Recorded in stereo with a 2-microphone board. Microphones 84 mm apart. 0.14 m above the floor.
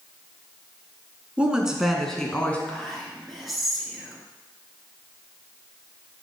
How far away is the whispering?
About 2.5 m.